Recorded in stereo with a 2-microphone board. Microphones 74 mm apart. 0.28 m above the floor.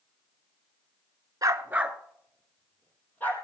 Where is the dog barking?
55° right (ahead or behind), 0.8 m; by 3.4 s 25° left (ahead or behind), 2.5 m.